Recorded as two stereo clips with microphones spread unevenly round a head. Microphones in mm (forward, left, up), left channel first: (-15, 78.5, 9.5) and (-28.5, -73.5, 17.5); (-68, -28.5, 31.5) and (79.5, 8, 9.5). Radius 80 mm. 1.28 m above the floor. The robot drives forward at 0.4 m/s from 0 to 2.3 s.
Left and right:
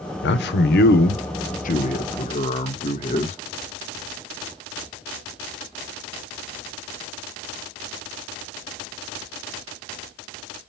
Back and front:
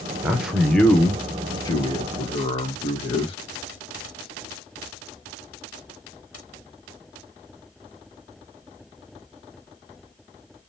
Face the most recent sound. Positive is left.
turn(degrees=135)